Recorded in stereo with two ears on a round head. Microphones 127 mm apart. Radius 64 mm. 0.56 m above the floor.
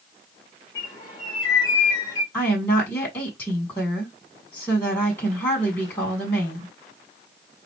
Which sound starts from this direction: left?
A bird, at 0.8 s.